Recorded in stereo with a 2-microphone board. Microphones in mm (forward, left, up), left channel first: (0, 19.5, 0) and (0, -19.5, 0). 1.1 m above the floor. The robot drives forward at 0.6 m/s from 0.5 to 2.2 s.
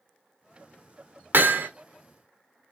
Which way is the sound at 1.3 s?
60° right (ahead or behind).